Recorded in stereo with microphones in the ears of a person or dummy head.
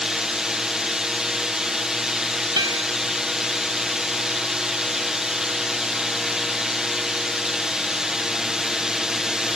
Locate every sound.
0.0 s a drone: 5° right (ahead or behind)
2.6 s a guitar: 20° right (ahead or behind)